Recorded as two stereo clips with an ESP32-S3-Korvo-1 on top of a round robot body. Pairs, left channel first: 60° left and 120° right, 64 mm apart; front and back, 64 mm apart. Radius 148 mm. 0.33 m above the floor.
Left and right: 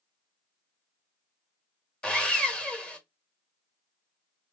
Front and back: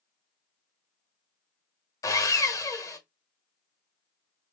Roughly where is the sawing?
Ahead.